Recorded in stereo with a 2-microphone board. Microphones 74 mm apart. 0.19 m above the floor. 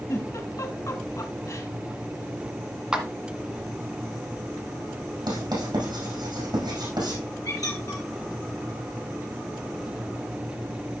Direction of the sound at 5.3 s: 70° right (ahead or behind).